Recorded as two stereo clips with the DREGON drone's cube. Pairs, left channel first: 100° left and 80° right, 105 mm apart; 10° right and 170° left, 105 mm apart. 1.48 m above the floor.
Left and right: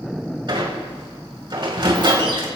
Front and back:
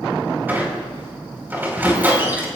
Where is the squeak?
120° right, 4 m.